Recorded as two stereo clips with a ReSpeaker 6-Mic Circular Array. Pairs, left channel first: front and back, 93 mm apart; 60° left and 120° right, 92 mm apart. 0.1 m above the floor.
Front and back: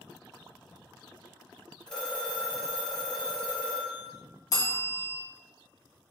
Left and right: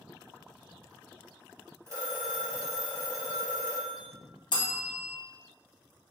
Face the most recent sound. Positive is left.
turn(degrees=45)